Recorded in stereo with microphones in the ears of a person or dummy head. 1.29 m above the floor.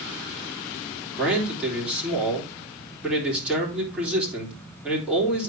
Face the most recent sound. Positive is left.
turn(degrees=0)  # may be behind; listen again after turning